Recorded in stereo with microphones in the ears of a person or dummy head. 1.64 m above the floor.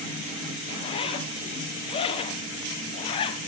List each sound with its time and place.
0.7 s a zipper: 35° left (ahead or behind), 0.7 m